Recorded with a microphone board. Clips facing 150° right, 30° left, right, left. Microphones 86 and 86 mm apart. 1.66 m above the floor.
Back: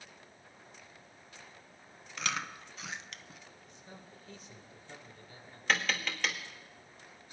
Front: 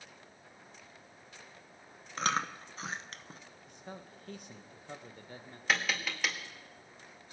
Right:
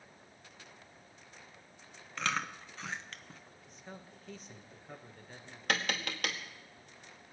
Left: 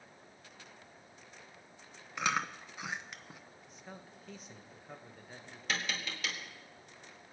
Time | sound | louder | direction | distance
2.2 | chewing | front 5 dB, left 2 dB | 25° left | 0.7 m
3.7 | a man speaking | front 7 dB, right 1 dB | straight ahead | 1.4 m
5.7 | tapping | even, right 4 dB | 55° right | 1.7 m